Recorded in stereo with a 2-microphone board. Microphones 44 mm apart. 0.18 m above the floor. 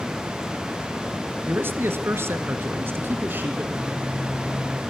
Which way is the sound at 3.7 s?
25° right (ahead or behind).